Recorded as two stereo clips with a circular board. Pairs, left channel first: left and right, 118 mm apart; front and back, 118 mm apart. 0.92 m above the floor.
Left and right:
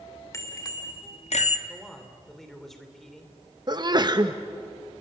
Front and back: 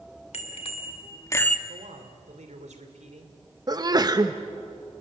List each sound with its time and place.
0.3 s a bicycle bell: 25° left, 2 m; by 1.6 s 90° left, 0.9 m
1.7 s a man speaking: 175° left, 3 m
3.7 s a sneeze: 135° right, 0.8 m